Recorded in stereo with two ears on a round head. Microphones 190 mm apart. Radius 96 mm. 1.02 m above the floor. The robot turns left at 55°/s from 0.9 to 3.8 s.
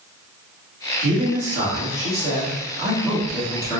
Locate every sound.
1.0 s a man speaking: 65° right, 1.8 m; by 3.8 s 140° left, 1.8 m